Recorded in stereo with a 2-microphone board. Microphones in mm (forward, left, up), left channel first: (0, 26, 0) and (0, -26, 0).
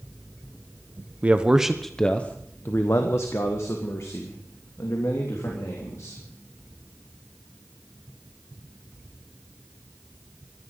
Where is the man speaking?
25° right (ahead or behind), 1.1 m; by 6.2 s 85° left, 4 m.